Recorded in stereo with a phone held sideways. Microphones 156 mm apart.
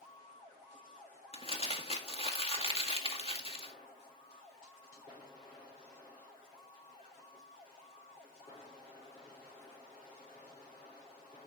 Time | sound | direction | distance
1.3 | crumpling | 40° left (ahead or behind) | 1.9 m